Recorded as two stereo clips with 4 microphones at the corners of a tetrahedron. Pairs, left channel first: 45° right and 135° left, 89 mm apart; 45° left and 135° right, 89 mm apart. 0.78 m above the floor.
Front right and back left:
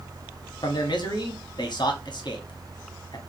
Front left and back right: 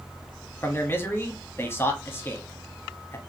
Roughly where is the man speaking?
Ahead.